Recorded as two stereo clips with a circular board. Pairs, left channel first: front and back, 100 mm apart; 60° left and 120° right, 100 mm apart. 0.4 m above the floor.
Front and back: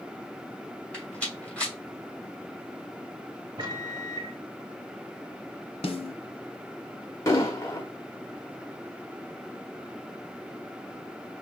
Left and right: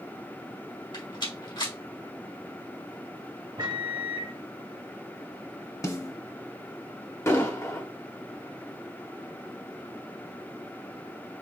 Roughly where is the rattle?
Left.